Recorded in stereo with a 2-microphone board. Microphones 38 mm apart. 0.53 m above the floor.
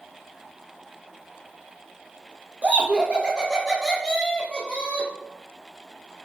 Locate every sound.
2.6 s laughter: 45° right (ahead or behind), 0.9 m; by 5.1 s 30° left (ahead or behind), 1.1 m